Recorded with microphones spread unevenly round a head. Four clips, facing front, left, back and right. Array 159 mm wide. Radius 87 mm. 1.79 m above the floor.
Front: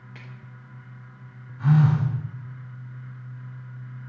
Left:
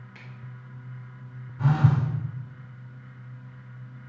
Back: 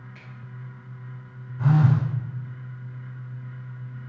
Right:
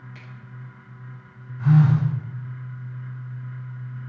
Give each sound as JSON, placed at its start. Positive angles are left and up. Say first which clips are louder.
{"t": 0.1, "sound": "a finger snap", "louder": "right 3 dB, front 2 dB", "azimuth_deg": 5, "distance_m": 4.5}
{"t": 1.6, "sound": "a phone buzzing", "louder": "right 5 dB, front 1 dB", "azimuth_deg": 120, "distance_m": 2.5}